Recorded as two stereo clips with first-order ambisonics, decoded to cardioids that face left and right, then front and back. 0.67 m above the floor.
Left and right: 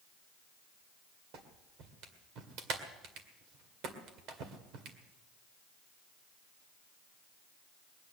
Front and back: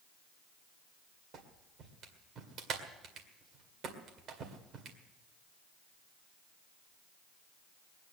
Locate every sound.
1.3 s a clap: 125° right, 2 m